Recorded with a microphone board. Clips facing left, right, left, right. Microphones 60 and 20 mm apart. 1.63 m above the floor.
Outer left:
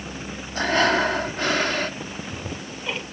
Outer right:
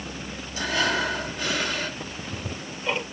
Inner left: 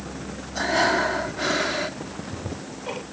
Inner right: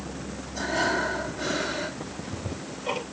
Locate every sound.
0.6 s breathing: 50° left (ahead or behind), 1.6 m
2.0 s ticking: 10° right (ahead or behind), 3.5 m